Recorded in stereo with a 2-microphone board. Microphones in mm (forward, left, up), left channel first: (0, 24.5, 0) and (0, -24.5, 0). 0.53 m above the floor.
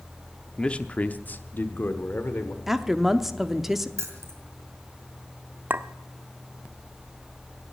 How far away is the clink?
About 0.5 m.